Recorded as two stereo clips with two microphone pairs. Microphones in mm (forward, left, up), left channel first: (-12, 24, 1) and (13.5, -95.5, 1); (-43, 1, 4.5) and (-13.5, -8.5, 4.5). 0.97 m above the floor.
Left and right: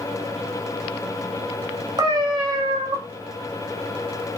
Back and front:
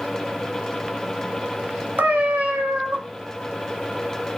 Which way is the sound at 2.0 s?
25° right.